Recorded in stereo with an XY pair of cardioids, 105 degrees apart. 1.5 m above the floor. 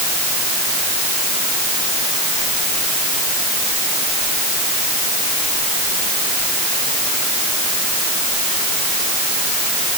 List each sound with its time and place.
Only background noise.